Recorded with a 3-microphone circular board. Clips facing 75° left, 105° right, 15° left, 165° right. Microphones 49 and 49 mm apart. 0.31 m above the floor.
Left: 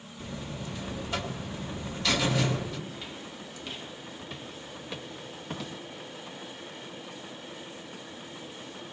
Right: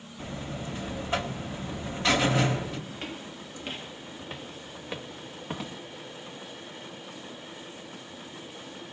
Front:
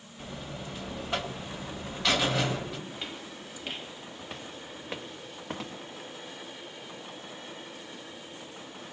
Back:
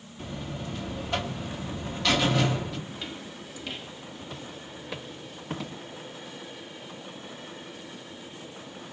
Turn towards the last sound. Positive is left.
turn(degrees=-35)